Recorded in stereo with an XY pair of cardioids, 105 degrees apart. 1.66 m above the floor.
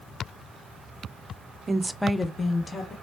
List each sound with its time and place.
1.7 s a woman speaking: 30° right, 0.6 m; by 2.9 s 40° left, 1.2 m